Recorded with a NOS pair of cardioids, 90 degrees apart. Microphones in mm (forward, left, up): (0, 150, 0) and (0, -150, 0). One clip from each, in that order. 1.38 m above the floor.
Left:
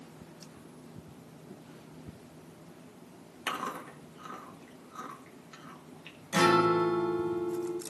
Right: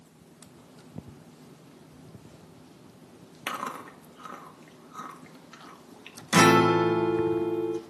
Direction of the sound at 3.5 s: 20° right.